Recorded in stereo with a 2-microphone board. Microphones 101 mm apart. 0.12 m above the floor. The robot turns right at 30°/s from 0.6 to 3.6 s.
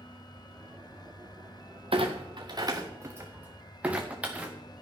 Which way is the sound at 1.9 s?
65° right (ahead or behind).